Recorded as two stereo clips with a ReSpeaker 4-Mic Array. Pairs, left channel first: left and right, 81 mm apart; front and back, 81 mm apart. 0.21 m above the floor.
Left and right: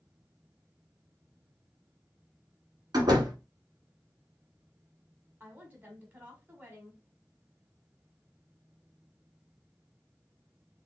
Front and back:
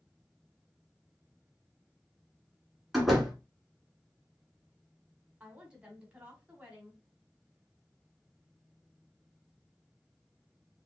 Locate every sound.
2.9 s a door slam: 90° right, 1.5 m
5.4 s a woman speaking: 120° right, 1.4 m